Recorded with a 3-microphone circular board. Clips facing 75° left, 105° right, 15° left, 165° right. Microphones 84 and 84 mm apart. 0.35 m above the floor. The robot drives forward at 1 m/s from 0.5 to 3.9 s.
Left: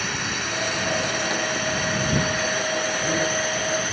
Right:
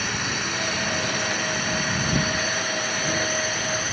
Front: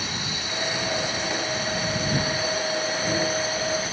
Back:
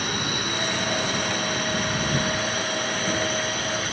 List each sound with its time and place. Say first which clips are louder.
0.0 s a drone: even, back 5 dB; 165° left